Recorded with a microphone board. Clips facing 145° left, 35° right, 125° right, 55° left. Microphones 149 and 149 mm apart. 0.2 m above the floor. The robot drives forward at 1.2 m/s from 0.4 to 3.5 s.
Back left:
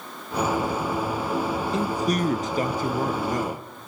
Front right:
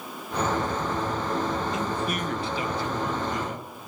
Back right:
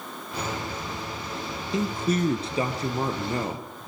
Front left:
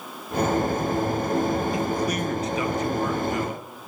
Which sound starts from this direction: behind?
A man speaking, at 1.7 s.